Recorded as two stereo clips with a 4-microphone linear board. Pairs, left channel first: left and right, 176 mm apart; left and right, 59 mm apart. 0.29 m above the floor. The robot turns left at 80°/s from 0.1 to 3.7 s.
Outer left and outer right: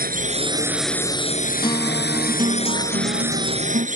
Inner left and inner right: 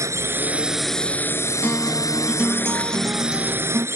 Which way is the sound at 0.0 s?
120° right.